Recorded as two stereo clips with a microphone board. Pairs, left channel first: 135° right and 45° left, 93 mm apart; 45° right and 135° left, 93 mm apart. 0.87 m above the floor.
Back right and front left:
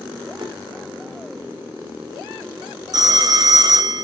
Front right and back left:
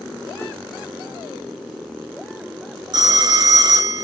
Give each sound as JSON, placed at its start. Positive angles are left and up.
{"t": 0.4, "sound": "a whoosh", "azimuth_deg": 15, "distance_m": 1.9}
{"t": 2.9, "sound": "a phone ringing", "azimuth_deg": 90, "distance_m": 0.8}